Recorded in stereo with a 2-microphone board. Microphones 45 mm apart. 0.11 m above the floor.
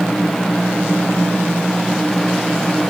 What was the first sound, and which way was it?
Only background noise.